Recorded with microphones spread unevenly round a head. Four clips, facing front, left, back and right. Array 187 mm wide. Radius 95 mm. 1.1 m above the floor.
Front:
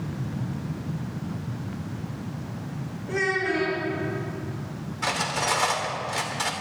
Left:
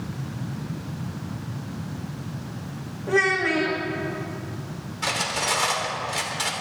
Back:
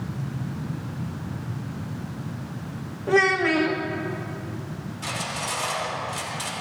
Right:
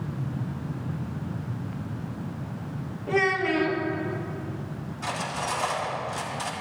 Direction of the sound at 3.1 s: 160° left.